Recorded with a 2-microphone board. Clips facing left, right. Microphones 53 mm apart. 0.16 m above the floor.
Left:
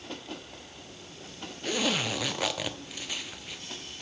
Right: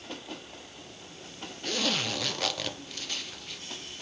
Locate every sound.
1.6 s a zipper: 10° left (ahead or behind), 0.7 m